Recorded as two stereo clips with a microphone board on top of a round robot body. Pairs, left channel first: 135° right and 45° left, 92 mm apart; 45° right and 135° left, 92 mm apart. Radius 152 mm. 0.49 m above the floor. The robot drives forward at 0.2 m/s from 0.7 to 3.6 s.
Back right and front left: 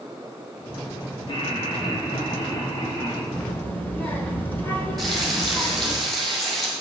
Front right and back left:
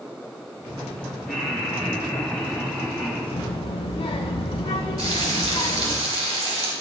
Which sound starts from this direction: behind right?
Laughter, at 1.3 s.